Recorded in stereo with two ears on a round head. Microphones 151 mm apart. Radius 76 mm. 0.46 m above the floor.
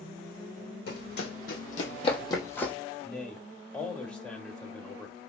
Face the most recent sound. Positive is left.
turn(degrees=5)  # may be behind; listen again after turning